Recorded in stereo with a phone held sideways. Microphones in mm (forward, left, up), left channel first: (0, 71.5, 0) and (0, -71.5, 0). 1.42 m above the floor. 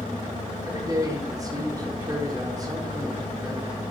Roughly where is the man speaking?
Right.